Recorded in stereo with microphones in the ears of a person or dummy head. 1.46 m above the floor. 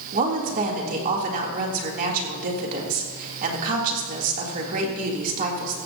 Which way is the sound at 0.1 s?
45° right (ahead or behind).